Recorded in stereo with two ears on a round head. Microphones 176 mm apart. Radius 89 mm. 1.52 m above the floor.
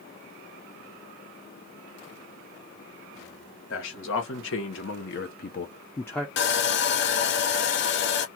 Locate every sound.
3.7 s a man speaking: 70° left (ahead or behind), 1.3 m; by 6.3 s centre (ahead or behind), 0.5 m
6.4 s sawing: 55° left (ahead or behind), 0.5 m